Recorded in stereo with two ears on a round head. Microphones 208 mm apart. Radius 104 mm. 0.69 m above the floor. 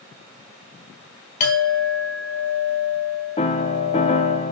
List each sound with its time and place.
1.4 s a clink: 35° left (ahead or behind), 1.4 m
3.4 s a piano: 25° left (ahead or behind), 0.8 m